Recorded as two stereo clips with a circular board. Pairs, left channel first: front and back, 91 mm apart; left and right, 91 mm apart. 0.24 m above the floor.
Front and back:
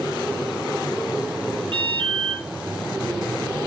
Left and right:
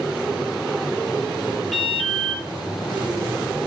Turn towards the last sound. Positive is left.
turn(degrees=180)